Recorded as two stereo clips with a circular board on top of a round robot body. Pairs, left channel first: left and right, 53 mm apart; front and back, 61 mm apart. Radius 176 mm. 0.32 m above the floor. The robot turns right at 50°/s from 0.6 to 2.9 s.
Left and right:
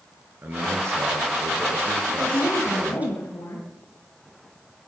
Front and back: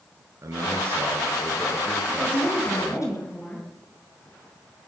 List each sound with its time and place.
0.4 s a man speaking: 145° right, 6.5 m; by 3.1 s 30° right, 6.5 m
2.1 s a woman speaking: 30° left, 6.5 m; by 3.7 s 70° left, 6.5 m